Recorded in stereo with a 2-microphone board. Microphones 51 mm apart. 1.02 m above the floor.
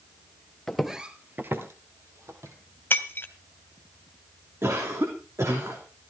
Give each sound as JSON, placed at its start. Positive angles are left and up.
{"t": 0.7, "sound": "footsteps", "side_deg": 10, "distance_m": 1.3}
{"t": 2.9, "sound": "breaking glass", "side_deg": 45, "distance_m": 1.7}
{"t": 4.6, "sound": "a cough", "side_deg": -65, "distance_m": 3.0}